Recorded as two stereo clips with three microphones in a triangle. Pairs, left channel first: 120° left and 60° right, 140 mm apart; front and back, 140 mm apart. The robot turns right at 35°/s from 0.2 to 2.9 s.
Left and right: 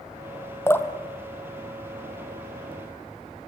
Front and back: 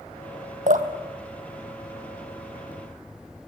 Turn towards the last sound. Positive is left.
turn(degrees=-90)